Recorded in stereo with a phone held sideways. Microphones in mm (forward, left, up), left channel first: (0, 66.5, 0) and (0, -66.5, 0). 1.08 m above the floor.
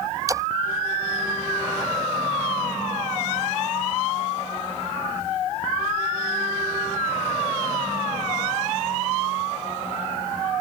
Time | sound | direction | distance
0.3 | a splash | 25° right (ahead or behind) | ?